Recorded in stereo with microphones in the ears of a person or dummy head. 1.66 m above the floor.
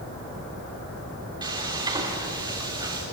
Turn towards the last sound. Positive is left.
turn(degrees=-20)  # may be behind; listen again after turning